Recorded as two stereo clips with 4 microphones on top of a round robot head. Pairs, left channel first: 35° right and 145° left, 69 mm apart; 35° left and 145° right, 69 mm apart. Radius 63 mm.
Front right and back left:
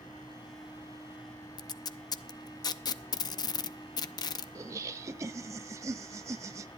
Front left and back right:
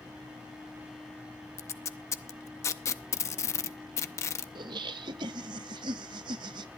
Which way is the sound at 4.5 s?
165° right.